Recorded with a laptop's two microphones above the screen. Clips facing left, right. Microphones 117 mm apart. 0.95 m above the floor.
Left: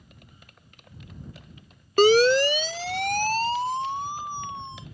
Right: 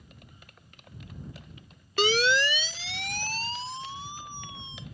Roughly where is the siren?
Left.